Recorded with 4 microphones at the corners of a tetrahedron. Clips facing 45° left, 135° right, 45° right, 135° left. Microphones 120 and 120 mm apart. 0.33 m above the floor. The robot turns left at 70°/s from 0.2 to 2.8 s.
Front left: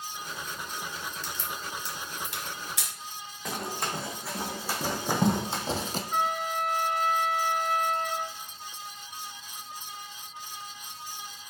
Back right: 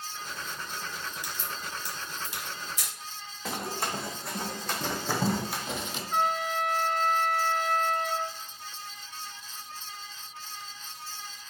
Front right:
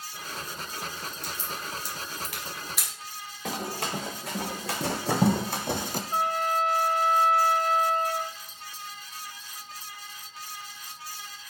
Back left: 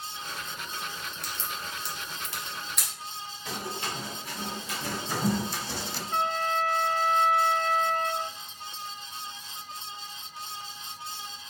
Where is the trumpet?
40° right, 0.9 m.